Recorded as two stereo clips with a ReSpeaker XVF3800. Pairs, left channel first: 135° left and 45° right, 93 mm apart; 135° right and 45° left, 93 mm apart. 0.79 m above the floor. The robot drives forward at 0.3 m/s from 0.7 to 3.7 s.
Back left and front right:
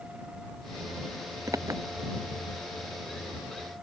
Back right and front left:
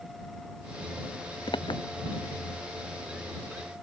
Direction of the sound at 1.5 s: 100° right.